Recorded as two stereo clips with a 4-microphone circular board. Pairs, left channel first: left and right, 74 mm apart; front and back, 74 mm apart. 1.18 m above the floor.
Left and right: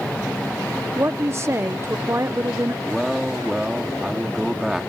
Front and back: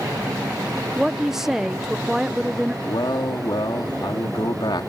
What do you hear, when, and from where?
1.0 s a woman speaking: 100° right
2.8 s a man speaking: 5° right